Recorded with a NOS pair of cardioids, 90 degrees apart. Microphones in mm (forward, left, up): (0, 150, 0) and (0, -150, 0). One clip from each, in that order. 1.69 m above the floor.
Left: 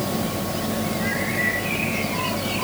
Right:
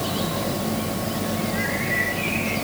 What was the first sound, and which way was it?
Only background noise.